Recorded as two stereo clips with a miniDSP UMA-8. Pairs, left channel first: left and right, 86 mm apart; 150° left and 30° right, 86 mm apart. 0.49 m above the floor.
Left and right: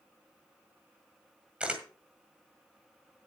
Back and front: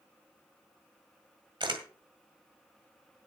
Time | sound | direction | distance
1.6 | a camera shutter | 15° right | 1.8 m